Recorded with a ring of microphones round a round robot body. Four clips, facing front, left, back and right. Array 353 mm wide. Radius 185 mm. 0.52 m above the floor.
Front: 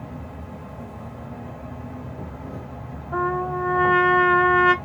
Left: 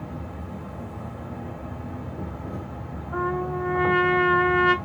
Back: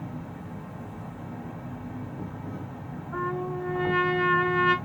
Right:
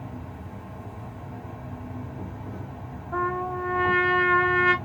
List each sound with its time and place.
0.0 s an insect: 60° left, 1.4 m
3.1 s a trumpet: 10° right, 0.9 m